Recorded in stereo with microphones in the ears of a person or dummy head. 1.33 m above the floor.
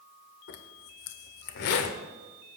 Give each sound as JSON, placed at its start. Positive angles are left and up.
{"t": 0.5, "sound": "a zipper", "side_deg": 55, "distance_m": 1.5}